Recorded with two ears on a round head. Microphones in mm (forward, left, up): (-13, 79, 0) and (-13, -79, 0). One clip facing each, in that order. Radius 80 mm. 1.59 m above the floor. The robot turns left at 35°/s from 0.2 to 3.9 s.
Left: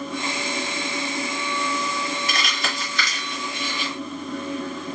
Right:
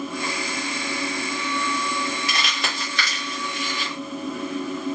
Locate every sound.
2.3 s crumpling: 55° right (ahead or behind), 1.4 m; by 3.9 s 35° right (ahead or behind), 1.4 m